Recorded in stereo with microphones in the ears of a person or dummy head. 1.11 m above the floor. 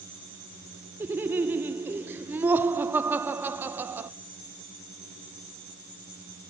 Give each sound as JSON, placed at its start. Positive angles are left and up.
{"t": 1.0, "sound": "laughter", "side_deg": -10, "distance_m": 0.8}